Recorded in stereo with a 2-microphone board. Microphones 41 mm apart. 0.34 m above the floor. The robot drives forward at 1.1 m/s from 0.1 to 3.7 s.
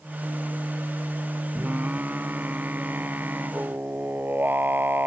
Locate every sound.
1.6 s singing: 40° right (ahead or behind); by 5.1 s 50° right (ahead or behind)